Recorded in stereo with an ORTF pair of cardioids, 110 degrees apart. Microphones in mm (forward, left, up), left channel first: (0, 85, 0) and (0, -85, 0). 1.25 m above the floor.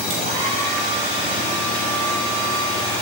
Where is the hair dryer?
40° right, 3.5 m.